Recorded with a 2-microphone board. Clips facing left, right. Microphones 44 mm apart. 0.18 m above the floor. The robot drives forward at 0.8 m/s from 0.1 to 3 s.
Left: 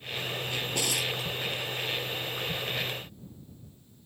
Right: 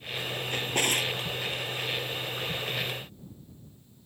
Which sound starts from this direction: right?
A drawer, at 0.5 s.